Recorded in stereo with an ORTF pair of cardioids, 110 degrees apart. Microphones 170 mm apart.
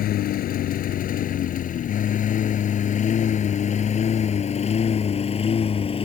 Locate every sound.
0.0 s a lawn mower: 65° left; by 6.1 s 35° left